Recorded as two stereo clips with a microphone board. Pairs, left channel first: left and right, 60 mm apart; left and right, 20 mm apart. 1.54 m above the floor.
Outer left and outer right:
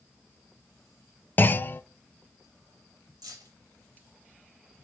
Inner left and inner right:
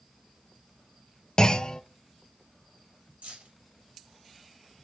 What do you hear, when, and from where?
1.4 s a clunk: 30° left (ahead or behind), 0.5 m
3.2 s keys jangling: 75° right (ahead or behind), 2.5 m